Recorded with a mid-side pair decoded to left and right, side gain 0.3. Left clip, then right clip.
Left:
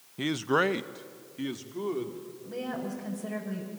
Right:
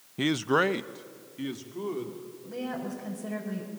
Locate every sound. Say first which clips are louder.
0.2 s a man speaking: right 1 dB; 50° right, 0.5 m; by 2.3 s 20° left, 3 m
2.4 s a woman speaking: even; 15° left, 5.5 m